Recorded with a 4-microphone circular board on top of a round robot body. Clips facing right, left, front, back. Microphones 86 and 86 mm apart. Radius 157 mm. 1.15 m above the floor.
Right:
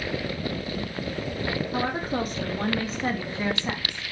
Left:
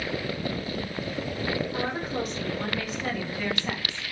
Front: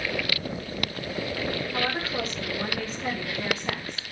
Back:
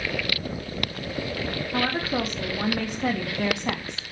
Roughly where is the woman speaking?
Behind right.